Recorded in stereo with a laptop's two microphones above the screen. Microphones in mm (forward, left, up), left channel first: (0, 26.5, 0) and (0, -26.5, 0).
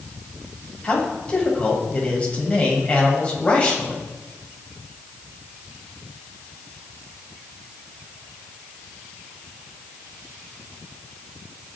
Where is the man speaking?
25° left (ahead or behind), 7.5 m.